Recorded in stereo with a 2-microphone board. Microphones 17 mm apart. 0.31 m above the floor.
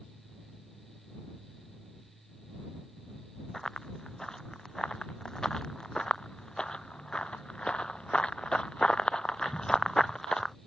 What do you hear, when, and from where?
3.5 s running footsteps: 35° left (ahead or behind); by 10.6 s 30° left (ahead or behind)